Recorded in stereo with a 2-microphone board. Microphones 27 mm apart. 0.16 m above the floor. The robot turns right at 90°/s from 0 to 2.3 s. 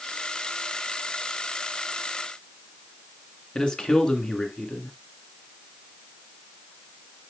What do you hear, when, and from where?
3.5 s a man speaking: 35° left (ahead or behind), 2 m